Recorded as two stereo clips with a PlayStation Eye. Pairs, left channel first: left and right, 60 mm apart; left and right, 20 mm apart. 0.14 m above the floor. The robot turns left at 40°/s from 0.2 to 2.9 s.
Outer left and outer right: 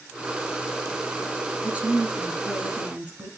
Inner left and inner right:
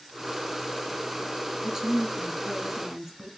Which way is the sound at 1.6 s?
25° right (ahead or behind).